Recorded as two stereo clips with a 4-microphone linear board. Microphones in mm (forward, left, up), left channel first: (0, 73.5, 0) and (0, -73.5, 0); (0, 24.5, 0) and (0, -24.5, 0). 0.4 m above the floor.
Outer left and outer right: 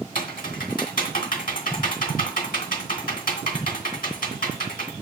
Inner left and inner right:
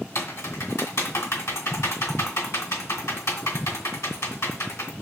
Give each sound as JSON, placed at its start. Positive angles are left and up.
{"t": 0.1, "sound": "typing on a keyboard", "side_deg": 75, "distance_m": 2.0}